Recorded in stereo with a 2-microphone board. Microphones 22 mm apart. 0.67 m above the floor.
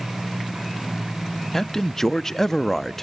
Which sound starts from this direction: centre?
A man speaking, at 1.5 s.